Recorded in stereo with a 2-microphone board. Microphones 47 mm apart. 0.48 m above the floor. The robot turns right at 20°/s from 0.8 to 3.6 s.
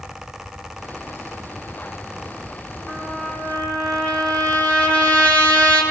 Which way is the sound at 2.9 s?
20° left (ahead or behind).